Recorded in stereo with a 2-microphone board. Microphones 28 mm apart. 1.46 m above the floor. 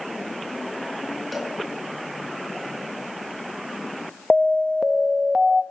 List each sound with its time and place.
1.3 s a cowbell: centre (ahead or behind), 5.5 m
4.3 s an alarm: 20° right (ahead or behind), 0.9 m